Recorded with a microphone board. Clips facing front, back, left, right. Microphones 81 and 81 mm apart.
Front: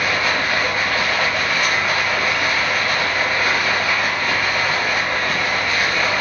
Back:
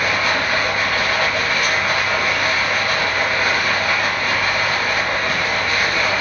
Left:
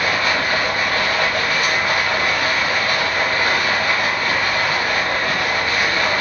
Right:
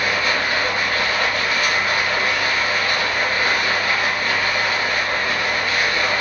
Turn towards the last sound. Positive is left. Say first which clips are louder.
# back 1 dB, left 1 dB
turn(degrees=95)